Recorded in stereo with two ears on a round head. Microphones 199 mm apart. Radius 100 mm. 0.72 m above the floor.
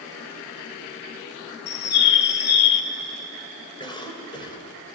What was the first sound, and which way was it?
A bird, 50° left (ahead or behind).